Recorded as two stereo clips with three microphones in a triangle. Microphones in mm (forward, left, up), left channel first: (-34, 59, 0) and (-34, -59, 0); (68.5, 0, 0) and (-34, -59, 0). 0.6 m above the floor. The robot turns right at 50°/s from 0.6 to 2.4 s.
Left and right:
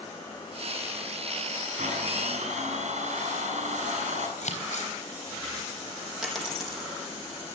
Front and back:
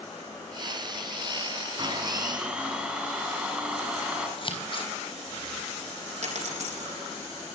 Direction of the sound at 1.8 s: 100° right.